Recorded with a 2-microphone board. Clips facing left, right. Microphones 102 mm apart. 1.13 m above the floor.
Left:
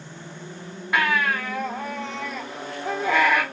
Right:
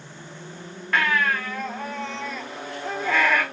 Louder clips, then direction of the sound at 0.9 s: Even; 10° left (ahead or behind).